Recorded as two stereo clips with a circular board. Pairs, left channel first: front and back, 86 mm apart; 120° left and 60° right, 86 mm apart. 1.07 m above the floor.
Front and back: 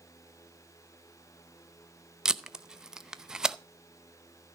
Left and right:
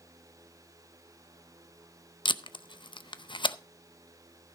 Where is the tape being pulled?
95° left, 0.6 m.